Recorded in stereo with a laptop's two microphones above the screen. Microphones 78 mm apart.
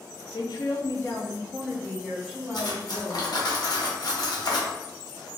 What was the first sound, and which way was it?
A woman speaking, 65° left (ahead or behind).